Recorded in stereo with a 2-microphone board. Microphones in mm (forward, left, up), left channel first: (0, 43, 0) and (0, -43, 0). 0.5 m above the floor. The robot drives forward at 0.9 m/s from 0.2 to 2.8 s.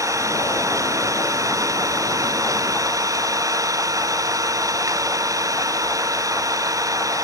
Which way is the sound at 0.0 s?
40° right (ahead or behind).